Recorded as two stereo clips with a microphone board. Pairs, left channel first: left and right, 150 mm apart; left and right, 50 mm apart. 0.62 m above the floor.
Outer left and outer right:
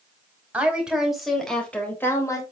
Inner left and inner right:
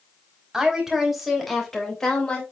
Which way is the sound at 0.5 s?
10° right (ahead or behind).